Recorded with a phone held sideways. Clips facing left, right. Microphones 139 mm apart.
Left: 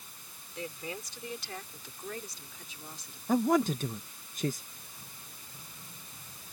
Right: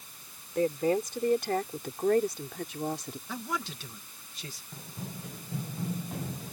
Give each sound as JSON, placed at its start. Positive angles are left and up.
{"t": 0.6, "sound": "a woman speaking", "side_deg": -50}
{"t": 3.3, "sound": "a man speaking", "side_deg": 45}
{"t": 4.7, "sound": "running footsteps", "side_deg": -80}